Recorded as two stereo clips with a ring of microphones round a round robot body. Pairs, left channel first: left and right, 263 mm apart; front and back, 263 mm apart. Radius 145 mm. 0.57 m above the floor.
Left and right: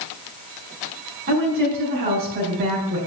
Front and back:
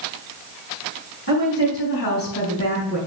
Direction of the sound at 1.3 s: 40° right.